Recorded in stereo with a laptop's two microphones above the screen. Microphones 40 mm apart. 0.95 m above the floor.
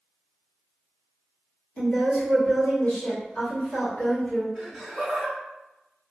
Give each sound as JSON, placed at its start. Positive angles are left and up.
{"t": 1.8, "sound": "a woman speaking", "side_deg": 50, "distance_m": 1.4}
{"t": 4.5, "sound": "laughter", "side_deg": 0, "distance_m": 1.9}